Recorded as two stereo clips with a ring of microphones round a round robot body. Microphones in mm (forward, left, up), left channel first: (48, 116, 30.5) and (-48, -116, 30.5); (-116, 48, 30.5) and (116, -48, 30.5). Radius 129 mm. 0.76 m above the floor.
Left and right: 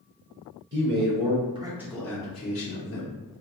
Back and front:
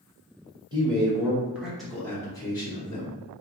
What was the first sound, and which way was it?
A man speaking, 90° right.